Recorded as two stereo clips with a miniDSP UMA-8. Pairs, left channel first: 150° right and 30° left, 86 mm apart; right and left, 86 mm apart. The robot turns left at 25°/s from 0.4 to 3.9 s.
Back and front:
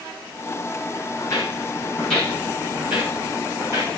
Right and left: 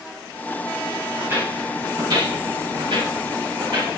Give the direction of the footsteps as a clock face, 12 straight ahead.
7 o'clock.